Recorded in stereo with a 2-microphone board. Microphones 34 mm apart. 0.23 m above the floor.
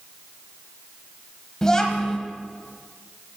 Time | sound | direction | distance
1.6 | a child speaking | 15° left (ahead or behind) | 0.9 m